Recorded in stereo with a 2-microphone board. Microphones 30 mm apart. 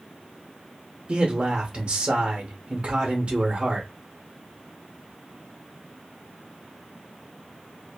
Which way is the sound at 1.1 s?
40° right (ahead or behind).